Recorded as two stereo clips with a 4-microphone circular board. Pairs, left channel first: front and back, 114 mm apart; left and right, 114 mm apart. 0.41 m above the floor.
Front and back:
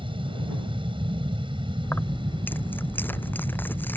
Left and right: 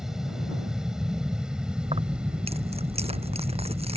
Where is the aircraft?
175° right; by 4.0 s 165° right.